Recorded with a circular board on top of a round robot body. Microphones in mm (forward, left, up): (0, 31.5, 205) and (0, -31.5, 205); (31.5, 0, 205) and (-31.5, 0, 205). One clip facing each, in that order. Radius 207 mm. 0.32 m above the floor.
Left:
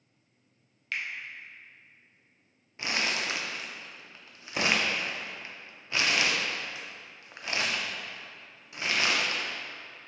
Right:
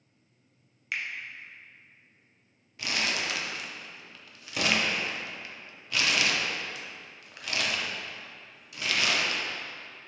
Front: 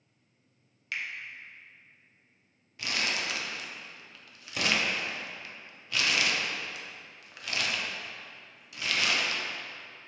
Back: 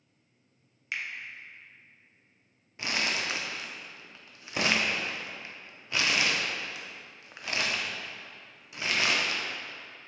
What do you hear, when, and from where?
0.9 s a finger snap: 155° right, 1.1 m
2.8 s crumpling: 130° left, 0.8 m